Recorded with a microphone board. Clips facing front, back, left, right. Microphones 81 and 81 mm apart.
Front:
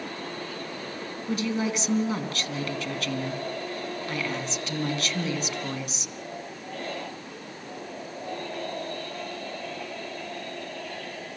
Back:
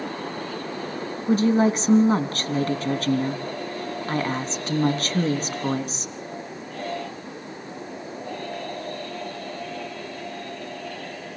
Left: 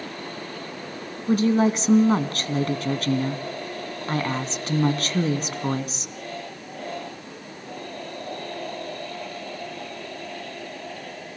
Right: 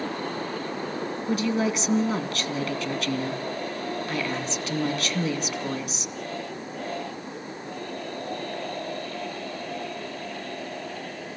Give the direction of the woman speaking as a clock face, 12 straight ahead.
7 o'clock.